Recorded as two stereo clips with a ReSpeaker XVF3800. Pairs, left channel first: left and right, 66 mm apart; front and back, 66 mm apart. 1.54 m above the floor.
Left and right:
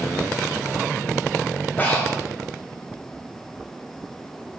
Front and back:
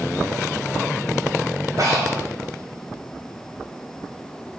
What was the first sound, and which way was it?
Breathing, 150° left.